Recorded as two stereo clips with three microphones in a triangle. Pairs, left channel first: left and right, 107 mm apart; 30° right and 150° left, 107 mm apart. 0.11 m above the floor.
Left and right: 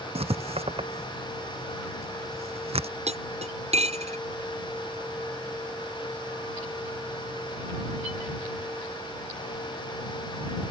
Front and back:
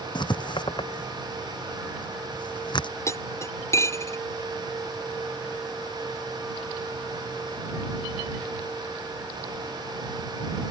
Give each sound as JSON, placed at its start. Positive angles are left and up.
{"t": 0.1, "sound": "writing", "azimuth_deg": -70}
{"t": 3.1, "sound": "cutlery clinking", "azimuth_deg": -95}